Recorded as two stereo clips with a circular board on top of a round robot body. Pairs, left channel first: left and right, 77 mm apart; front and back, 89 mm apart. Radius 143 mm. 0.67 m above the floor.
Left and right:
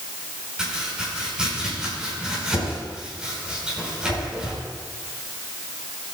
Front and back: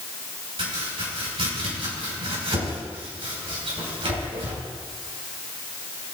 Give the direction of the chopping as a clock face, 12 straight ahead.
6 o'clock.